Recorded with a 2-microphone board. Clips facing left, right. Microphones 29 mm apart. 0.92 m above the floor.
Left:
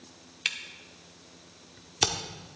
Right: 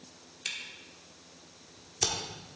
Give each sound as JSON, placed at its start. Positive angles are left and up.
{"t": 0.5, "sound": "a camera shutter", "side_deg": 50, "distance_m": 1.1}